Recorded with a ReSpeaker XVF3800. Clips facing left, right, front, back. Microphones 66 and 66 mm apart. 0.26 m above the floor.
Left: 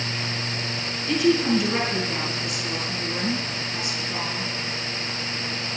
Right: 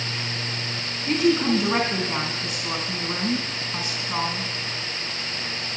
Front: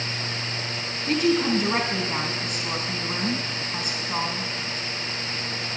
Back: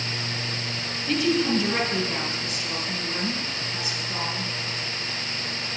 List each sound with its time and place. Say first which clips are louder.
1.1 s a woman speaking: even, front 1 dB; 60° right, 3.5 m